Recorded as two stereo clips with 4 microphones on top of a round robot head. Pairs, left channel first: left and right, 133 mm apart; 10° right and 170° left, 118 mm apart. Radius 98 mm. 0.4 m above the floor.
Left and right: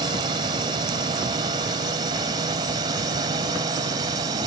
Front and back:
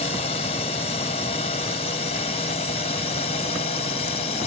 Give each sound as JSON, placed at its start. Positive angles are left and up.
{"t": 0.0, "sound": "a drone", "azimuth_deg": -35}